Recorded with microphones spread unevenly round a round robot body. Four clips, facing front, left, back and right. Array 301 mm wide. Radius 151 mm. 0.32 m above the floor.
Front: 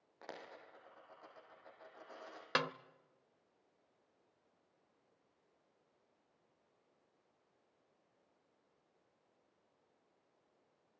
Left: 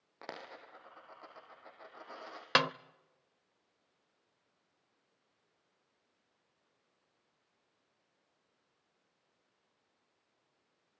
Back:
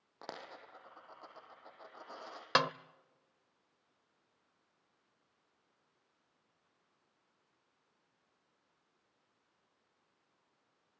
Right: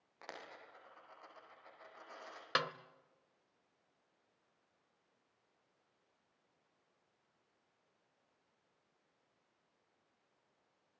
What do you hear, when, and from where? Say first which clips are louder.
0.2 s a dropped coin: left 5 dB, back 3 dB; 145° left, 4.5 m
2.5 s a snare drum: left 7 dB, back 6 dB; 145° left, 0.6 m